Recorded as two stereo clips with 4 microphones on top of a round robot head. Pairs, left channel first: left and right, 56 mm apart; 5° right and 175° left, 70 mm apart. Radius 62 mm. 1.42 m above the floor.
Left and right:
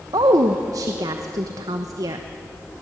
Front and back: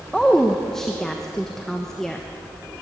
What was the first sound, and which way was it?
A woman speaking, 85° right.